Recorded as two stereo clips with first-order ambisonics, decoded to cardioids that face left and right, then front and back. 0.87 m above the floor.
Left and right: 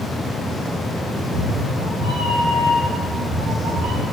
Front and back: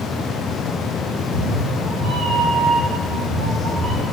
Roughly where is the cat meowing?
Ahead right.